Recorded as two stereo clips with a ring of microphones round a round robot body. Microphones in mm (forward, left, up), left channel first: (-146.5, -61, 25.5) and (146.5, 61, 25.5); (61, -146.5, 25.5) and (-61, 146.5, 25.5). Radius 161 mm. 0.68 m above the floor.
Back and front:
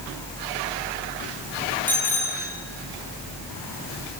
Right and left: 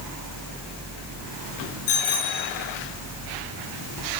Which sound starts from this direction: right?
A bicycle bell, at 1.9 s.